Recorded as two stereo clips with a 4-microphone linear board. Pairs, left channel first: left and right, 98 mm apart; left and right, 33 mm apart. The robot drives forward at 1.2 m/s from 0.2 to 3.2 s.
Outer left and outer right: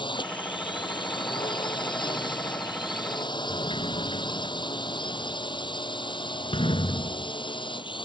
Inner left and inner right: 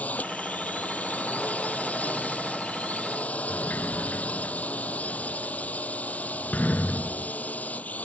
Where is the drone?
55° left (ahead or behind).